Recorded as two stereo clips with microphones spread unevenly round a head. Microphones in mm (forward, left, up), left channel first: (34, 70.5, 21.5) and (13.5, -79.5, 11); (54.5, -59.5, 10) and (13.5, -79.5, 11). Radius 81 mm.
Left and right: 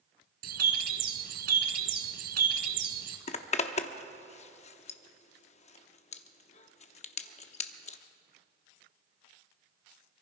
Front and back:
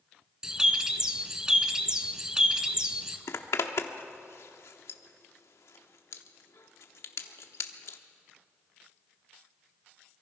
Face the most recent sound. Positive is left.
turn(degrees=45)